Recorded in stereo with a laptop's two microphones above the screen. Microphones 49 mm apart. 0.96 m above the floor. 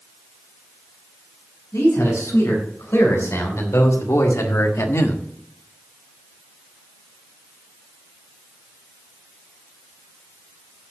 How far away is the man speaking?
About 5 m.